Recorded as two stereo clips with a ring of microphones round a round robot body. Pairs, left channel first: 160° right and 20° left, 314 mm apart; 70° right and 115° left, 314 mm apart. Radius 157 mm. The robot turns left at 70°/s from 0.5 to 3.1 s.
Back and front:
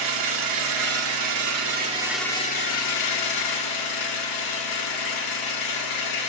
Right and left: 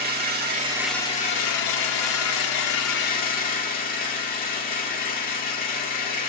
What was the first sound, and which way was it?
An engine running, 50° left.